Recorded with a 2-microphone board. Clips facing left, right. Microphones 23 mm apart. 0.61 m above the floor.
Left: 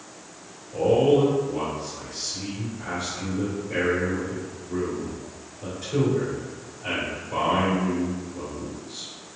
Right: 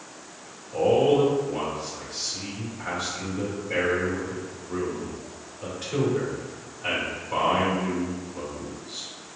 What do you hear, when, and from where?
0.7 s a man speaking: 30° right (ahead or behind), 1.9 m